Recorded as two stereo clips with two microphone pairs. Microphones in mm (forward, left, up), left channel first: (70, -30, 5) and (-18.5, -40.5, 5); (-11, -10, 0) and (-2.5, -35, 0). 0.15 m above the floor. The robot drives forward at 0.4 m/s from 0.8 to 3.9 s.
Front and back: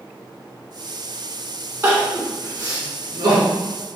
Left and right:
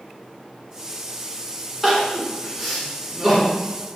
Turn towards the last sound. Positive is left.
turn(degrees=-155)